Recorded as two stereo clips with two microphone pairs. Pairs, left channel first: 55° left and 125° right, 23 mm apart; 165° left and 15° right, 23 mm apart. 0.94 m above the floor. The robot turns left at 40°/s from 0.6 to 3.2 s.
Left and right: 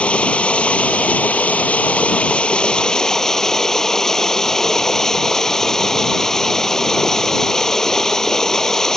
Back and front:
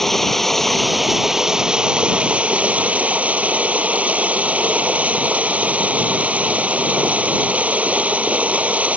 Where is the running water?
90° left; by 9.0 s 15° right.